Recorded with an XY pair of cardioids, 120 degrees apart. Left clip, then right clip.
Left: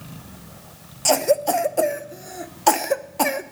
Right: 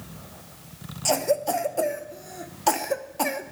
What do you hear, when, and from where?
1.1 s a cough: 25° left, 1.0 m